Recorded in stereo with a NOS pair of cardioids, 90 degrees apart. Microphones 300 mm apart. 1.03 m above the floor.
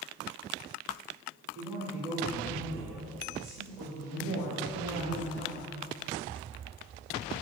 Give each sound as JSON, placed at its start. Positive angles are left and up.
{"t": 1.6, "sound": "a man speaking", "azimuth_deg": -30, "distance_m": 2.0}
{"t": 4.2, "sound": "a woman speaking", "azimuth_deg": -65, "distance_m": 1.7}